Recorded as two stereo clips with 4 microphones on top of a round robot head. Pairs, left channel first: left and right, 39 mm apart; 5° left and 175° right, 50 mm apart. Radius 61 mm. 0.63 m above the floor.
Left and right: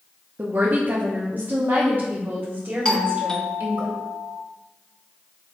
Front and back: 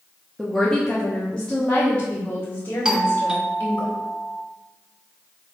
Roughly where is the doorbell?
Behind left.